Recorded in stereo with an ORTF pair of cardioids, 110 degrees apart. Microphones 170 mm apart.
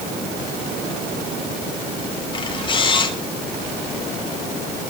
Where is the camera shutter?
30° left, 3.5 m.